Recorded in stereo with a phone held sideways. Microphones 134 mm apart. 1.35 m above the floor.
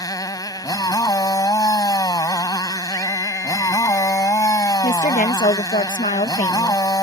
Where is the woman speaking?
75° left (ahead or behind).